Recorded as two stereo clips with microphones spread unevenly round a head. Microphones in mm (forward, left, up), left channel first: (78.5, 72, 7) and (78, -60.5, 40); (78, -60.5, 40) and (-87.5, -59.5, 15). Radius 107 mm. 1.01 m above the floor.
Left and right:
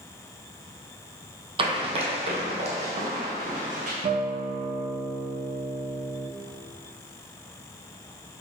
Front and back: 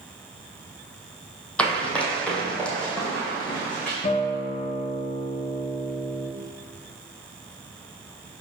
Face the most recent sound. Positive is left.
turn(degrees=-50)